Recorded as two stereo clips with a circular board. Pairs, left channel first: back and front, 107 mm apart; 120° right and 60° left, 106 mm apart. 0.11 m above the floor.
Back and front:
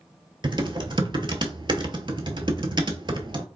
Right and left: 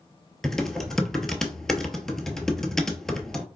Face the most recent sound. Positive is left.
turn(degrees=-35)